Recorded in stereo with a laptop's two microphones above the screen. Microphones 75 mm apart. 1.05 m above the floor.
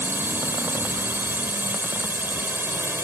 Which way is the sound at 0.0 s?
30° right (ahead or behind).